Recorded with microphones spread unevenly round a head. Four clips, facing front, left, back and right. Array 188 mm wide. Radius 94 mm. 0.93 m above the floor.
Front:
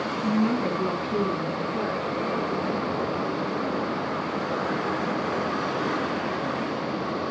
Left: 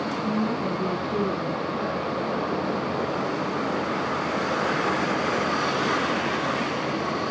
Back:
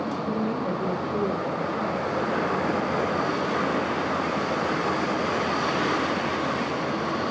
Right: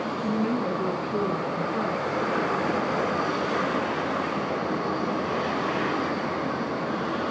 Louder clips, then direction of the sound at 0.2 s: Right 1 dB, front 3 dB; 5° left.